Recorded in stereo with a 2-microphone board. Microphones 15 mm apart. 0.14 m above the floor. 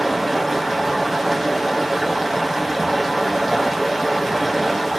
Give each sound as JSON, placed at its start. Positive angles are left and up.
{"t": 0.0, "sound": "running water", "side_deg": -10, "distance_m": 0.8}